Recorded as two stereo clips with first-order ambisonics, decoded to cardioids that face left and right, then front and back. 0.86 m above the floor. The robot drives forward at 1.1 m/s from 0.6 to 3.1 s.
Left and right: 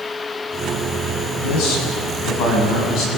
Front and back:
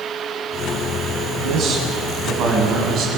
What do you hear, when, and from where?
1.4 s a man speaking: 120° left, 7 m; by 3.2 s 130° left, 8 m